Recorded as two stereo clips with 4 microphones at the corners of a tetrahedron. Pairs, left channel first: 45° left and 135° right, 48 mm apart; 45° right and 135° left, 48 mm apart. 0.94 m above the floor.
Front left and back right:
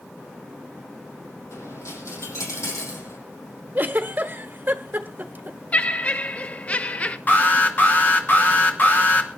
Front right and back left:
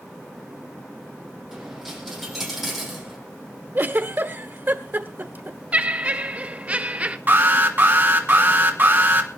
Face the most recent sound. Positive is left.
turn(degrees=95)